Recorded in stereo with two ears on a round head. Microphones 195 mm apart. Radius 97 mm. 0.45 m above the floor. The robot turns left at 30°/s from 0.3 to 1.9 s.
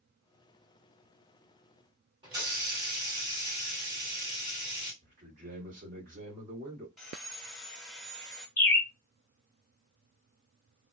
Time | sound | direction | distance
2.2 | a hiss | 25° right (ahead or behind) | 1.8 m
5.0 | a man speaking | 40° right (ahead or behind) | 1.5 m
7.0 | sawing | centre (ahead or behind) | 1.0 m
8.6 | a bird | 10° left (ahead or behind) | 0.5 m